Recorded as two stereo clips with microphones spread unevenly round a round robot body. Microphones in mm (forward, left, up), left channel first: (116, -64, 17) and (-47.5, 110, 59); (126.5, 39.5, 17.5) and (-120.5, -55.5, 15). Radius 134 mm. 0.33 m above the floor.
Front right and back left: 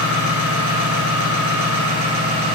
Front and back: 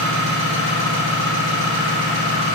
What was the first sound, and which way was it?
An engine running, 160° left.